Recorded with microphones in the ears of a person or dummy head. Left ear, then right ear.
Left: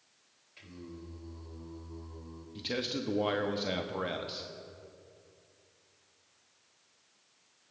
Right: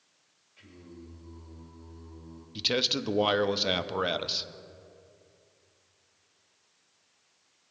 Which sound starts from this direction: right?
A man speaking, at 2.5 s.